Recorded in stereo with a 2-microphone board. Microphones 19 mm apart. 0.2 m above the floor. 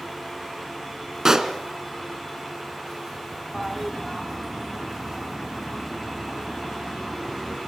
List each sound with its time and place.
1.2 s a pop: 35° right (ahead or behind), 1.9 m
3.5 s a toilet flushing: 5° right (ahead or behind), 1.6 m